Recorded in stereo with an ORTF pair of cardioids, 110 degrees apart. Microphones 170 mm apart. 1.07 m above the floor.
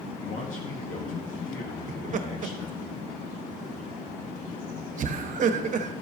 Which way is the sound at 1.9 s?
50° right.